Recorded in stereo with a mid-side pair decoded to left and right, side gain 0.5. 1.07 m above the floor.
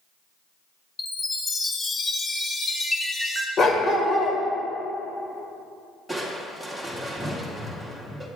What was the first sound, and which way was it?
A chime, 35° left.